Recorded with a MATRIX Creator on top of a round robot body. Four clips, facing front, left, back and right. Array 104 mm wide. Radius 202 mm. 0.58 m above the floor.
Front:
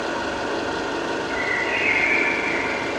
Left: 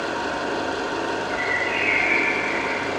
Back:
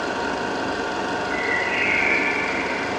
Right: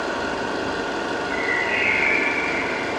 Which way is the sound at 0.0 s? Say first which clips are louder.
Right 1 dB, back 1 dB; 155° right.